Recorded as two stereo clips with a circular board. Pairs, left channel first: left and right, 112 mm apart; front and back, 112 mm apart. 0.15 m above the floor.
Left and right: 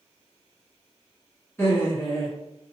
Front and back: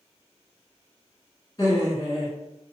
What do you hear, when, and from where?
1.6 s laughter: 30° left, 1.8 m